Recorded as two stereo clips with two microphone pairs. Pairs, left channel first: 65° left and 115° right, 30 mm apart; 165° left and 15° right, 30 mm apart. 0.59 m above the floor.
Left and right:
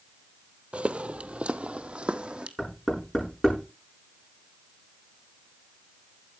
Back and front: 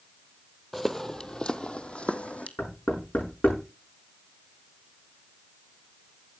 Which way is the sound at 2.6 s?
145° left.